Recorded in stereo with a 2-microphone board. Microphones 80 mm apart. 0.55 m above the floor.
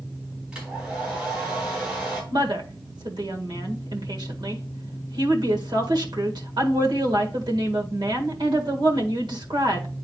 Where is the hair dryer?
10° right (ahead or behind), 4 m.